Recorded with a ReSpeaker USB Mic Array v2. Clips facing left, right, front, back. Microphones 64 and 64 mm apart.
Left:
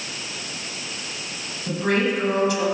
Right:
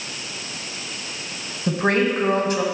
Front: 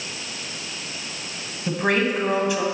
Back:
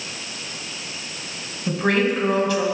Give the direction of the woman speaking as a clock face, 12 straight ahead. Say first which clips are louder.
Right 2 dB, back 1 dB; 2 o'clock.